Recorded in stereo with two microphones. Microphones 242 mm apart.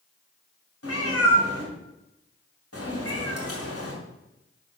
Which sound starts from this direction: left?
A cat meowing, at 0.8 s.